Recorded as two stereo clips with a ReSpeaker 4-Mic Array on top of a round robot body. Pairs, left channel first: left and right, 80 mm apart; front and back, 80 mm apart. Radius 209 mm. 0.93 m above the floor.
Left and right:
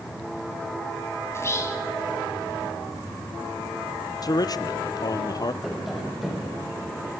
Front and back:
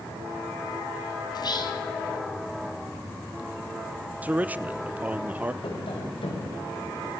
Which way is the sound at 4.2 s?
110° left.